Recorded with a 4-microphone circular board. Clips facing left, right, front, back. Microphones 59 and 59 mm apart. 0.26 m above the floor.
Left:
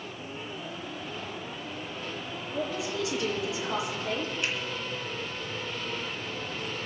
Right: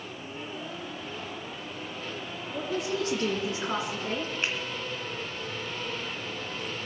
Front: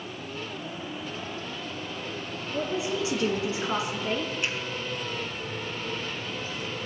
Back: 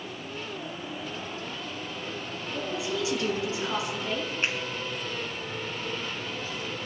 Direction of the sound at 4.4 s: 140° right.